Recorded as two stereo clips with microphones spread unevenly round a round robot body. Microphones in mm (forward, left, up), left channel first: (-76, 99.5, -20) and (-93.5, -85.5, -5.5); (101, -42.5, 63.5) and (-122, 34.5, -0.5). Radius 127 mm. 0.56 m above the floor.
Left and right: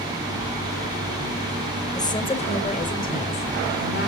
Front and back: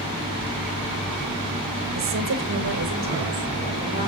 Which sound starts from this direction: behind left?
A woman speaking, at 1.9 s.